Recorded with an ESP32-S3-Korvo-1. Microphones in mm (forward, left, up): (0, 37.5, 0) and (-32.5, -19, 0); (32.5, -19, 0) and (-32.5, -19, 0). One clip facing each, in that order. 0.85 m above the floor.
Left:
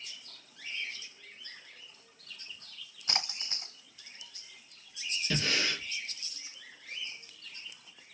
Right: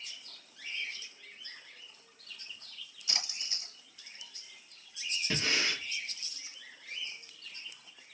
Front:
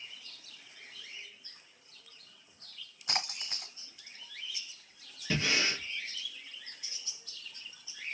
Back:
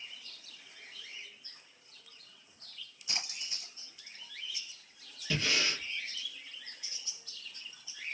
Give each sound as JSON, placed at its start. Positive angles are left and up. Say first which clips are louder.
{"t": 3.1, "sound": "a splash", "louder": "left 5 dB, front 5 dB", "azimuth_deg": 20, "distance_m": 1.1}
{"t": 5.3, "sound": "breathing", "louder": "left 1 dB, front 2 dB", "azimuth_deg": -65, "distance_m": 1.3}